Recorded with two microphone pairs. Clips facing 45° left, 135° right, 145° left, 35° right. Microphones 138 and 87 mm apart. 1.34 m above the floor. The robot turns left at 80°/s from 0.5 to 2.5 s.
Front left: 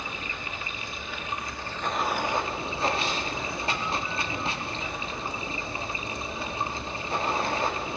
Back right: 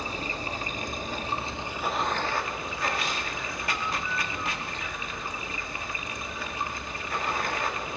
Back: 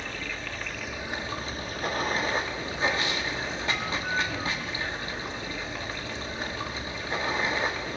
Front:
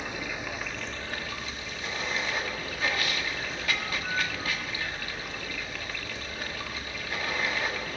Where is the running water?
105° right, 0.9 m; by 8.0 s 95° left, 0.9 m.